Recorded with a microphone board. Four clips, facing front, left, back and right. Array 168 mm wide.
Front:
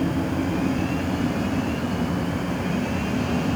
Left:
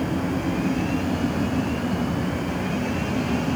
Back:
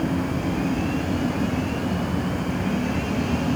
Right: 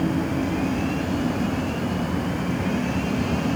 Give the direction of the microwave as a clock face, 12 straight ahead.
I don't hear a microwave.